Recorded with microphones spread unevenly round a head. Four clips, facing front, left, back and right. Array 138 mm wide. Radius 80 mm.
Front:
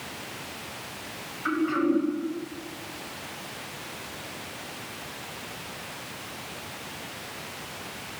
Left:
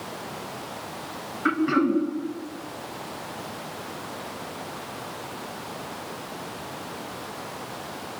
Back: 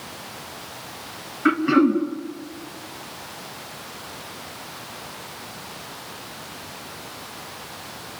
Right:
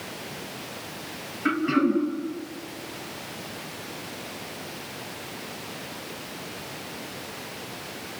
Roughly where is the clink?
No clink in this recording.